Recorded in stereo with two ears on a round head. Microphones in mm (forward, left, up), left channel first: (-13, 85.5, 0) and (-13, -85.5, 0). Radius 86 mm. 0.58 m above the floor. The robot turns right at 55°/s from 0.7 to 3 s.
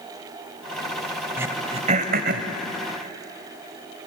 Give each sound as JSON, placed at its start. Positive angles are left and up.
{"t": 1.4, "sound": "throat clearing", "side_deg": -10, "distance_m": 1.9}